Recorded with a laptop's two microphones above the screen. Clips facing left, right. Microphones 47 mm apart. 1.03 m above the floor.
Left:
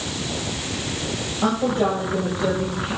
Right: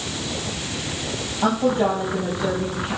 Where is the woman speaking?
40° left (ahead or behind), 5 m.